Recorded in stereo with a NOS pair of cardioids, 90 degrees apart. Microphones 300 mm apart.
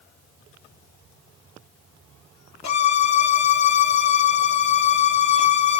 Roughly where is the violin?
Ahead left.